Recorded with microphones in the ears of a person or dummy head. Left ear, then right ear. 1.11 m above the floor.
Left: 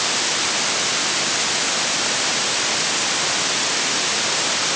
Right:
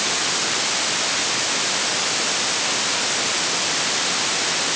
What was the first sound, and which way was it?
Only background noise.